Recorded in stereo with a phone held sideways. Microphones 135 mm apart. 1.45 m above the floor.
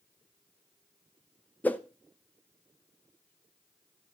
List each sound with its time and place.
1.6 s a whoosh: 10° left (ahead or behind), 0.6 m